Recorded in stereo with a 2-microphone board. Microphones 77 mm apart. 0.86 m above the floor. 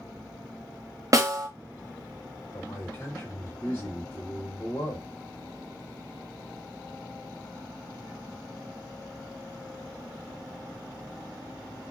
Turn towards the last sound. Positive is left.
turn(degrees=25)  # may be behind; listen again after turning